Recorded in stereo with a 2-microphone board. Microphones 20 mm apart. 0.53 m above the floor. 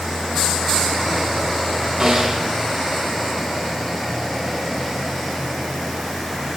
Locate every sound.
2.0 s a snare drum: 35° right (ahead or behind), 5 m